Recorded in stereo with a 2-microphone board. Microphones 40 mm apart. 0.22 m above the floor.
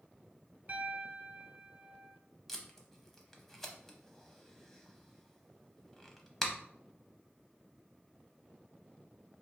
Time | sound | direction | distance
0.7 | a piano | 40° right (ahead or behind) | 0.6 m
2.5 | tape being pulled | 5° left (ahead or behind) | 0.7 m